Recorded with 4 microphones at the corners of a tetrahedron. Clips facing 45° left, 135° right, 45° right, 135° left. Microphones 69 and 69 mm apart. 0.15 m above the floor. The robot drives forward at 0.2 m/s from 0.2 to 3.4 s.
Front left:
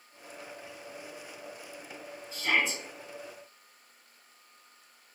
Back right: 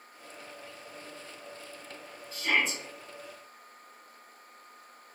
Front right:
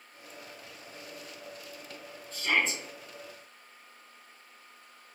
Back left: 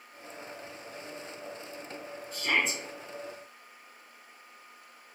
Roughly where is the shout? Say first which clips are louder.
Even, front right 1 dB; left.